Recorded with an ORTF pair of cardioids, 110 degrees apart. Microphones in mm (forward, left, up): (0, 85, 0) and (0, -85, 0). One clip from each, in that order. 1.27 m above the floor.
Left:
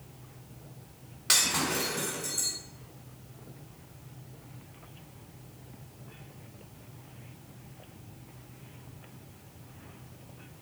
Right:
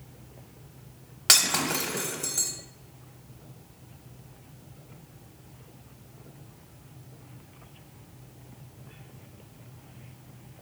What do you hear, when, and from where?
1.3 s breaking glass: 60° right, 1.1 m